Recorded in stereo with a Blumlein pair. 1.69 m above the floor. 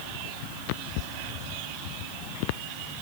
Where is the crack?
I don't hear a crack.